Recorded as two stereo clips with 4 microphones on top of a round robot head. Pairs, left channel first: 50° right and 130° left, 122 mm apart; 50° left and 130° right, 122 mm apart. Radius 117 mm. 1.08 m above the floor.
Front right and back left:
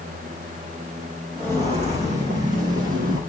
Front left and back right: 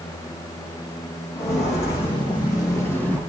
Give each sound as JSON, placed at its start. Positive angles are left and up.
{"t": 1.4, "sound": "footsteps", "azimuth_deg": 85, "distance_m": 4.0}